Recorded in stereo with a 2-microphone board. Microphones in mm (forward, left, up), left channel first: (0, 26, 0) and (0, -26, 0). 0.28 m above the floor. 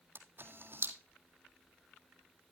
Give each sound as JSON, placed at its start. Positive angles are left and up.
{"t": 0.1, "sound": "a camera shutter", "side_deg": -45, "distance_m": 1.7}